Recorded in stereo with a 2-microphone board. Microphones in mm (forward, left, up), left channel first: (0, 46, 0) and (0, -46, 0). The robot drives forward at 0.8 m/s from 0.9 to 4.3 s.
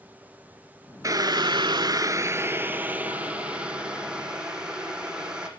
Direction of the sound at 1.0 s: 35° right (ahead or behind).